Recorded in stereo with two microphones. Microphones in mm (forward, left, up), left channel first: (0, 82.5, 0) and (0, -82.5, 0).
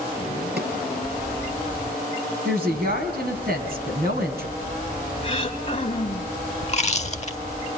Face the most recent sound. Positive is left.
turn(degrees=45)  # may be behind; listen again after turning